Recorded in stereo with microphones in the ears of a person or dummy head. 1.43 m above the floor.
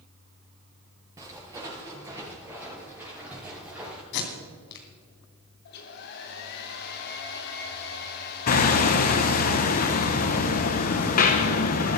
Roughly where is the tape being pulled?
Left.